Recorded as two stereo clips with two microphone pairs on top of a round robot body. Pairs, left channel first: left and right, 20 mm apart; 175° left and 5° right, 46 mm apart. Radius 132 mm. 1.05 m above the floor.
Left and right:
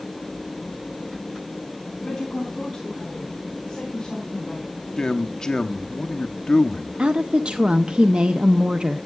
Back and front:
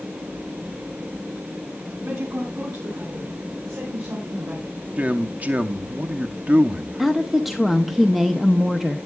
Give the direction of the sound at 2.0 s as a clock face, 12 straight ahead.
12 o'clock.